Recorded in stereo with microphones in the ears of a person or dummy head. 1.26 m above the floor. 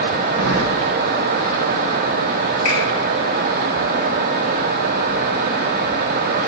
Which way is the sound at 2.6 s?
25° left (ahead or behind).